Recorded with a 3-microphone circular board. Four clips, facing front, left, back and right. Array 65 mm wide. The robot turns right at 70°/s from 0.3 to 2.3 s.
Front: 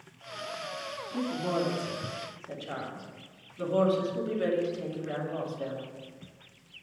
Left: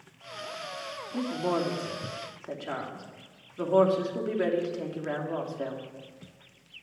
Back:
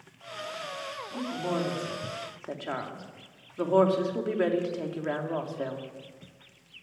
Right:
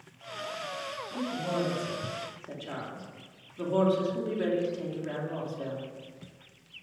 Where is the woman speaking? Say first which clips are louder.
Left 3 dB, front 1 dB; 75° left, 2.5 m; by 5.8 s 155° left, 2.5 m.